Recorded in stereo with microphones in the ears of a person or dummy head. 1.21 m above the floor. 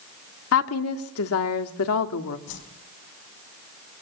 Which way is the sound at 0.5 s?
80° left.